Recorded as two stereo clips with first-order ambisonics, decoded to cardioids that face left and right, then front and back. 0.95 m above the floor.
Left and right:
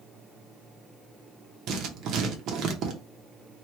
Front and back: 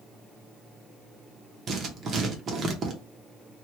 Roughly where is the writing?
Behind right.